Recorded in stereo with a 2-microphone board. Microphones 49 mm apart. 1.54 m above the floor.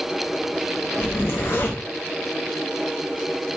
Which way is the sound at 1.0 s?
55° left (ahead or behind).